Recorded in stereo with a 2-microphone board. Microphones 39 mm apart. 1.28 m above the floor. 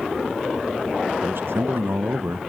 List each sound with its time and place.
1.2 s a man speaking: 80° right, 0.9 m